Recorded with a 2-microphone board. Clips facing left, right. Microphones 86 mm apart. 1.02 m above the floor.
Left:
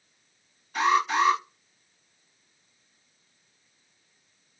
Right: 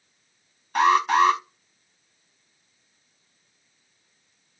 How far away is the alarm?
About 1.1 m.